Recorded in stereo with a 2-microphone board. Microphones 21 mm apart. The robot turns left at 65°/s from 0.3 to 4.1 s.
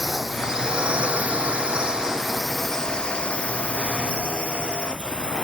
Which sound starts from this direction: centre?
A drone, at 0.0 s.